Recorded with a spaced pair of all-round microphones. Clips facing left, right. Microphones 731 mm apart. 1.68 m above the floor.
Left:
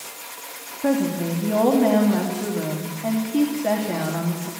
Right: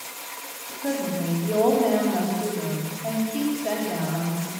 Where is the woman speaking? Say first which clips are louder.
Left 5 dB; 75° left (ahead or behind), 3.5 m.